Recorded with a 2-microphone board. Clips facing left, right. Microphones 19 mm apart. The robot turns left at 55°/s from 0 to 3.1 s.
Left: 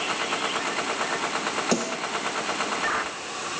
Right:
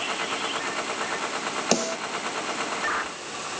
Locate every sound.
1.7 s a snare drum: 35° right (ahead or behind), 1.2 m; by 2.0 s 40° right (ahead or behind), 1.2 m